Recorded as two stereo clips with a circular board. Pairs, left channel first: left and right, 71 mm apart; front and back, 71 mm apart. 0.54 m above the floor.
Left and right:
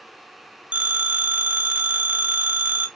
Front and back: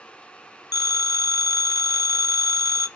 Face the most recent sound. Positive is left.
turn(degrees=-20)